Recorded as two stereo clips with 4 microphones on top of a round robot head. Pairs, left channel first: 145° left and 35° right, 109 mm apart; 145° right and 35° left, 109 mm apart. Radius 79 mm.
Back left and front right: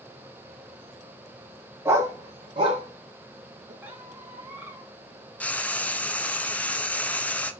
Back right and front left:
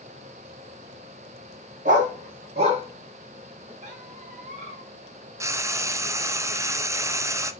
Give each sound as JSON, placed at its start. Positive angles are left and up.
{"t": 1.9, "sound": "a dog barking", "azimuth_deg": 30, "distance_m": 1.2}
{"t": 3.8, "sound": "a squeak", "azimuth_deg": 35, "distance_m": 1.5}
{"t": 5.4, "sound": "frying", "azimuth_deg": 75, "distance_m": 0.6}